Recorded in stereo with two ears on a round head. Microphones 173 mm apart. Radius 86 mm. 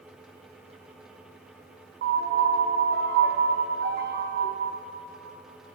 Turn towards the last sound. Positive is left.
turn(degrees=-50)  # may be behind; listen again after turning